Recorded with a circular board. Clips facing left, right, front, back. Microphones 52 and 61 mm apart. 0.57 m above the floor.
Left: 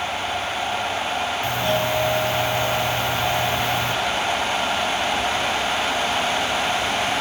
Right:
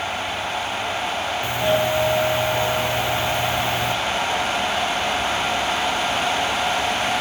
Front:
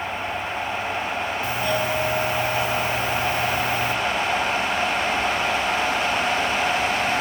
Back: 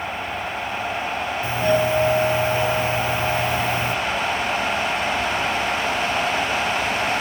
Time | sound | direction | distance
1.4 | a doorbell | 140° right | 1.7 m